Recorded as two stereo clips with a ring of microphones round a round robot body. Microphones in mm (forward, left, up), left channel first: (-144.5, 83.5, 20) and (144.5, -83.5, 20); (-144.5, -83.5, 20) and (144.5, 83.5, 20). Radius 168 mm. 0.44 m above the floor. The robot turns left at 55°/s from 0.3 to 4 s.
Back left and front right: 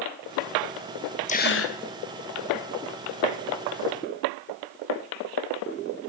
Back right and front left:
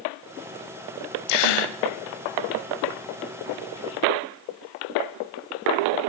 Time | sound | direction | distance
1.3 | a gasp | 140° right | 1.2 m